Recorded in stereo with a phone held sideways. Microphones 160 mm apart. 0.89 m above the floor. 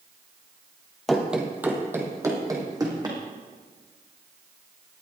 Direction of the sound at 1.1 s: Centre (ahead or behind).